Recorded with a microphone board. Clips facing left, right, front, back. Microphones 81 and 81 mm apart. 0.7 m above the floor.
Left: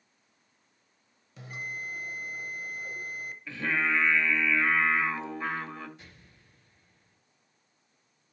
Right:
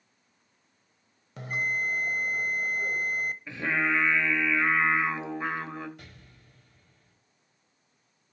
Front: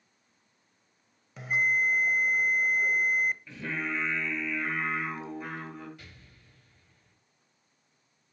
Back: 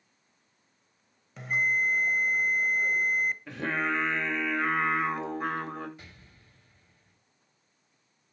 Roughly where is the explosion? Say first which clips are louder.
Right 3 dB, back 1 dB; behind right.